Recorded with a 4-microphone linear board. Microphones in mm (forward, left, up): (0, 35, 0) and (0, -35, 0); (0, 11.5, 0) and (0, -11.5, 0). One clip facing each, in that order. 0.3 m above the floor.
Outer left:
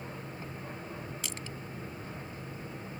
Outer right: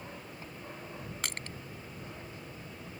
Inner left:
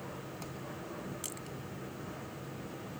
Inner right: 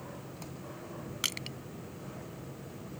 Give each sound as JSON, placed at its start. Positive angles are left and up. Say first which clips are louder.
{"t": 1.2, "sound": "crushing", "louder": "outer right 1 dB, inner right 8 dB", "side_deg": -60}